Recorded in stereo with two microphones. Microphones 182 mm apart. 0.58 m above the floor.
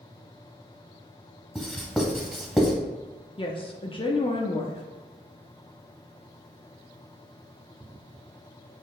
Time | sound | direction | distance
1.6 | writing | centre (ahead or behind) | 0.9 m
3.4 | a woman speaking | 30° left (ahead or behind) | 0.6 m